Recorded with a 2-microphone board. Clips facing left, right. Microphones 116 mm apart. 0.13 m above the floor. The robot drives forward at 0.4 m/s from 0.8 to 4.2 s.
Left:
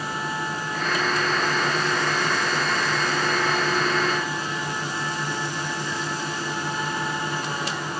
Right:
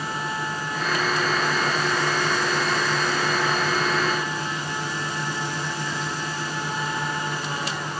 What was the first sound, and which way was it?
Only background noise.